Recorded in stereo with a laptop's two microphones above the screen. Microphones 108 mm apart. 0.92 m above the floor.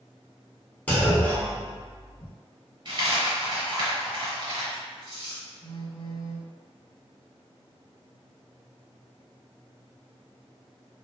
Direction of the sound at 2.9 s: 50° right (ahead or behind).